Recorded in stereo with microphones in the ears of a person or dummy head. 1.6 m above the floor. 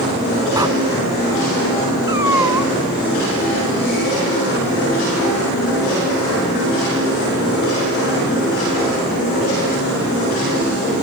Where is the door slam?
20° right (ahead or behind).